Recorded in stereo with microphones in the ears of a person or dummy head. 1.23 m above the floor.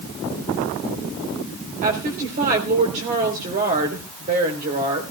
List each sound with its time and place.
1.8 s a woman speaking: 40° right (ahead or behind), 3.5 m